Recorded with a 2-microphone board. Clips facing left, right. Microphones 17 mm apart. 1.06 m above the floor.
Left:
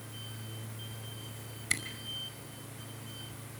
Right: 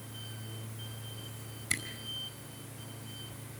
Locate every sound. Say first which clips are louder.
1.7 s a camera shutter: left 1 dB; 25° left (ahead or behind), 5 m